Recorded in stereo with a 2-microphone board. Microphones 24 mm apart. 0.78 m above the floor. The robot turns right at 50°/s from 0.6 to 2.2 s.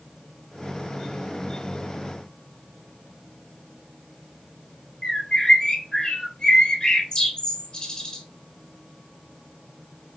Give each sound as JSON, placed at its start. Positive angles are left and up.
{"t": 5.0, "sound": "a bird", "side_deg": 30, "distance_m": 1.5}